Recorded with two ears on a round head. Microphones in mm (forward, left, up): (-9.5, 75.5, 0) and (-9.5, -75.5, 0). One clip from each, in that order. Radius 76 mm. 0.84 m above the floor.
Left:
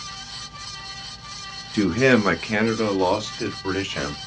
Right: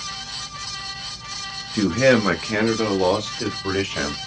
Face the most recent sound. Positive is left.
turn(degrees=5)  # may be behind; listen again after turning